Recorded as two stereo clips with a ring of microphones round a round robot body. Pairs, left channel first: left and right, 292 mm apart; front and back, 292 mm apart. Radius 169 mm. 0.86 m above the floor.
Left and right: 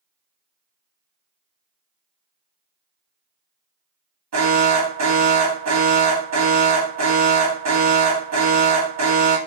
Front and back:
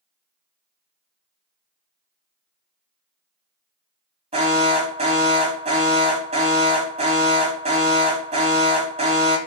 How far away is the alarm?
About 3 m.